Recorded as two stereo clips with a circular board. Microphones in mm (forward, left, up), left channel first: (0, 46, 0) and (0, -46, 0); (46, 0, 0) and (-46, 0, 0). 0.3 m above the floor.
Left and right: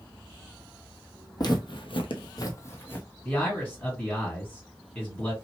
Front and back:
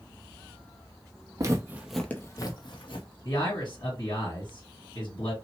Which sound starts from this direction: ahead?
A man speaking, at 3.2 s.